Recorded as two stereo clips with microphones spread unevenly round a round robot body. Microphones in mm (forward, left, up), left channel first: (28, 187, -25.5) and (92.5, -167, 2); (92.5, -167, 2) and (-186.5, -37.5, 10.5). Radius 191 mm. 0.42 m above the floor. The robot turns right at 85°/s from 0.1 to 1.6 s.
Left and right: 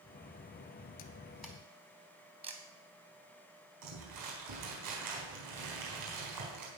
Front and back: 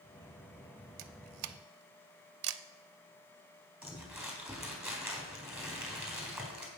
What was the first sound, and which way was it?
A camera shutter, 155° left.